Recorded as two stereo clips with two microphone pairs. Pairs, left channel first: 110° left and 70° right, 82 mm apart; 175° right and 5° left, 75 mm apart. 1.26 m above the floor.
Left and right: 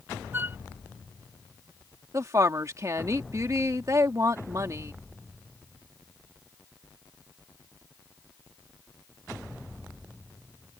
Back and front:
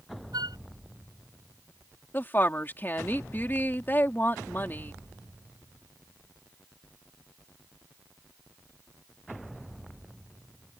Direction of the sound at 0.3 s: 5° right.